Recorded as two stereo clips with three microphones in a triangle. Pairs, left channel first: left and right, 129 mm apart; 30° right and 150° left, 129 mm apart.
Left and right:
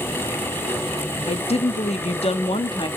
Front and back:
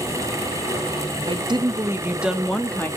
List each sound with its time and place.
1.3 s a woman speaking: 115° left, 0.9 m; by 2.9 s 45° left, 0.9 m